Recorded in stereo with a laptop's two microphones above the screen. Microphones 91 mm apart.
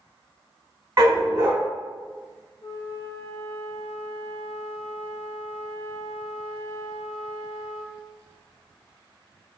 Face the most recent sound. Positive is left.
turn(degrees=70)  # may be behind; listen again after turning